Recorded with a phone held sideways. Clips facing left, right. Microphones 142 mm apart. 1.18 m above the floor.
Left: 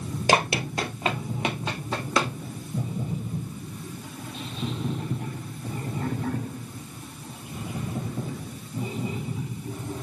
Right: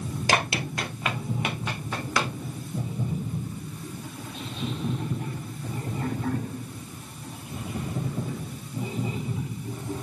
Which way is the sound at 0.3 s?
25° left (ahead or behind).